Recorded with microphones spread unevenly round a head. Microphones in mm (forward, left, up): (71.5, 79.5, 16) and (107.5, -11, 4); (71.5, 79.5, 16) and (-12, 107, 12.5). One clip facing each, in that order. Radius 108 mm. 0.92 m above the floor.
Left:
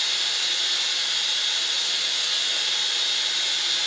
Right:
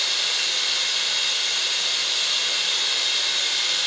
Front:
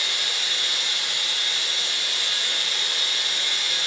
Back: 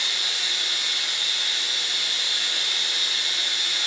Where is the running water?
60° right, 1.5 m.